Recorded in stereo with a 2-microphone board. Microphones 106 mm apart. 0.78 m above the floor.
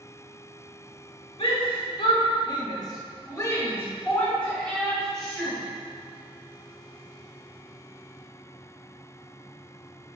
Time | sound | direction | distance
1.4 | a shout | 55° left (ahead or behind) | 1.4 m